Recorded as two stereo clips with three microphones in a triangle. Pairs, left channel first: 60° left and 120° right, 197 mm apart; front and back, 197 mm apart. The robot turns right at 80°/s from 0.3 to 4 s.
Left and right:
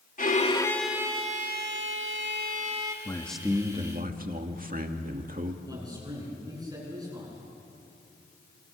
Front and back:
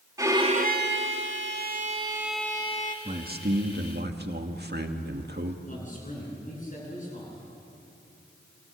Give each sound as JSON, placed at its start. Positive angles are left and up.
{"t": 0.2, "sound": "a violin", "azimuth_deg": 105, "distance_m": 1.6}
{"t": 3.0, "sound": "a man speaking", "azimuth_deg": 125, "distance_m": 2.0}
{"t": 5.7, "sound": "a man speaking", "azimuth_deg": -50, "distance_m": 10.0}